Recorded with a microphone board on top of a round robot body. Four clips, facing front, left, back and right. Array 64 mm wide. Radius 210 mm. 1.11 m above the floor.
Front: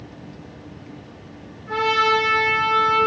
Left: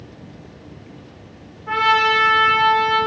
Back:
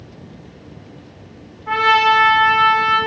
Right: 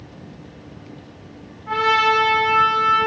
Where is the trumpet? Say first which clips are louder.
Left 1 dB, back 5 dB; straight behind, 3.5 m.